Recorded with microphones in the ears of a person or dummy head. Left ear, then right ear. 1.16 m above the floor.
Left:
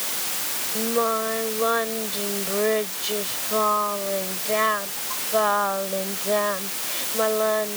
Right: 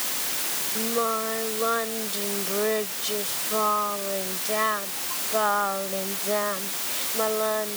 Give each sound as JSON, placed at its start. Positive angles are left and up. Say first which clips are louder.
{"t": 0.8, "sound": "singing", "louder": "left 3 dB", "side_deg": 10}